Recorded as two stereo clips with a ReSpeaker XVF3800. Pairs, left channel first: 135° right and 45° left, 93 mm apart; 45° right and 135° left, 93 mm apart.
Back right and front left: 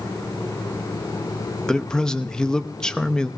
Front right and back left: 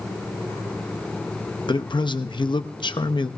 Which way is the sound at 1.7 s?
55° right.